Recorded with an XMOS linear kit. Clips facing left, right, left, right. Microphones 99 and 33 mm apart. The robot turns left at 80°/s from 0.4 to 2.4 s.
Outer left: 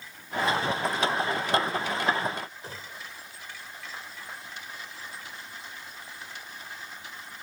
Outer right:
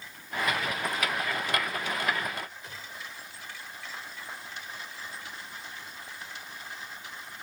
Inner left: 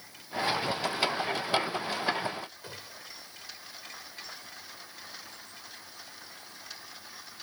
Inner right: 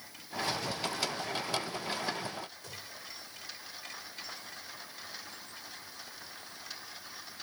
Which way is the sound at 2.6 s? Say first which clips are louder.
Outer left 1 dB, inner left 1 dB; 35° left (ahead or behind).